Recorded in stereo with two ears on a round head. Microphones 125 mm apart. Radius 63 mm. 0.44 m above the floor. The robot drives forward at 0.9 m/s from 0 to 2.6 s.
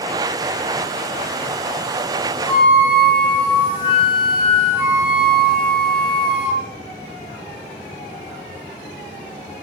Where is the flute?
35° left (ahead or behind), 1.8 m; by 6.7 s 40° left (ahead or behind), 1.7 m.